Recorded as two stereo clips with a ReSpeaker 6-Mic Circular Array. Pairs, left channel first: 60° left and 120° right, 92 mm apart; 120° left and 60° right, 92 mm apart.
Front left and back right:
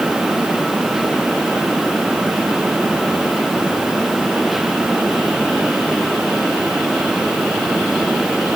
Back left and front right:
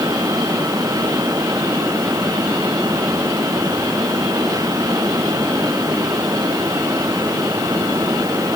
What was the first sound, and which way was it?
Only background noise.